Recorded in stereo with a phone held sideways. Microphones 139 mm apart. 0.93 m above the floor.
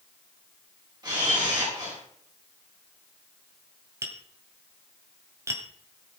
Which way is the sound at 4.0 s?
20° right (ahead or behind).